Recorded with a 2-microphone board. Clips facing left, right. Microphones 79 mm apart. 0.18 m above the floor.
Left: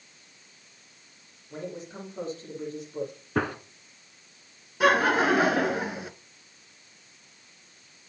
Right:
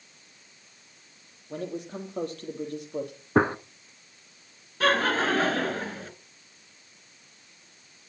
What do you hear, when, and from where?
1.5 s a man speaking: 65° right (ahead or behind), 6.5 m
3.4 s a gunshot: 30° right (ahead or behind), 0.9 m
4.8 s laughter: 15° left (ahead or behind), 2 m